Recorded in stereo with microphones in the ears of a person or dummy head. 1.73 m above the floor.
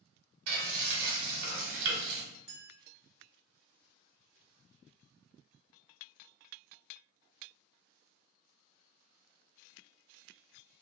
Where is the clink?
10° right (ahead or behind), 1.1 m.